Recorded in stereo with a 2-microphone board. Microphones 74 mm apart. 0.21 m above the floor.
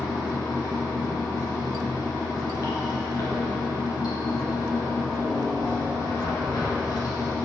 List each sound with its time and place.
0.0 s running water: 70° left (ahead or behind), 2 m